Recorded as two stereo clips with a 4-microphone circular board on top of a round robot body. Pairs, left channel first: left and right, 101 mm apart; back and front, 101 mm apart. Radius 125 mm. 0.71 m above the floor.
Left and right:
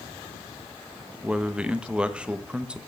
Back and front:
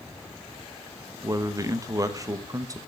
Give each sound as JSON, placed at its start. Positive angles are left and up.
{"t": 1.2, "sound": "a man speaking", "azimuth_deg": -20, "distance_m": 1.3}